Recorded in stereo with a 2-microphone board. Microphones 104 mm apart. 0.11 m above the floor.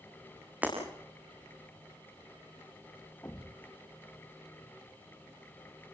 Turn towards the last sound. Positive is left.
turn(degrees=20)  # may be behind; listen again after turning